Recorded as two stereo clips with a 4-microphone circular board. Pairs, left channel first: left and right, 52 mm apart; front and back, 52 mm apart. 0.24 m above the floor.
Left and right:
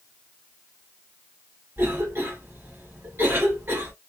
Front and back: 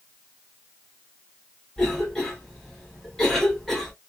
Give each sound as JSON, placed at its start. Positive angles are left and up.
{"t": 1.8, "sound": "a cough", "azimuth_deg": -75, "distance_m": 1.3}